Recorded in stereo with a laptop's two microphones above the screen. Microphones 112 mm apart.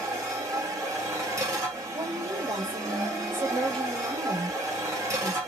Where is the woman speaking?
45° right (ahead or behind), 2.5 m.